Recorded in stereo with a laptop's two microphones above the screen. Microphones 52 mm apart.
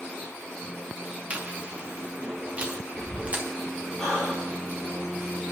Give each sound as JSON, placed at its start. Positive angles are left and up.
{"t": 1.3, "sound": "chewing", "side_deg": -30, "distance_m": 2.0}
{"t": 4.0, "sound": "breathing", "side_deg": 5, "distance_m": 8.0}